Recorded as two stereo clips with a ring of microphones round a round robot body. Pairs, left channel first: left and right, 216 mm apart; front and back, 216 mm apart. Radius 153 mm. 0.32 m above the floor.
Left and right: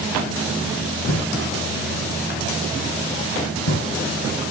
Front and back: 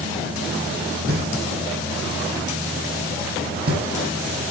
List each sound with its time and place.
1.1 s knocking: 135° left, 9.5 m